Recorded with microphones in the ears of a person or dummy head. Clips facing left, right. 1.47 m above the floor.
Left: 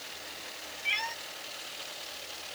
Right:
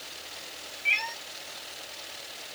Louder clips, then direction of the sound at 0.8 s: Right 1 dB; centre (ahead or behind).